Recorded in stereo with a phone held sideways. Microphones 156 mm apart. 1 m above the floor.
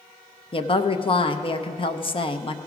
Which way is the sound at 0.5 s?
35° left (ahead or behind).